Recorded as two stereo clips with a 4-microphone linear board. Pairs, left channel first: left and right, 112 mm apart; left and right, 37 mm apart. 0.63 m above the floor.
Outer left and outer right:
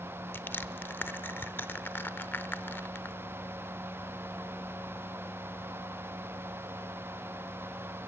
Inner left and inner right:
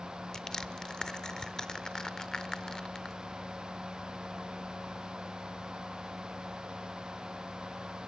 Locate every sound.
0.3 s crushing: 20° left (ahead or behind), 0.7 m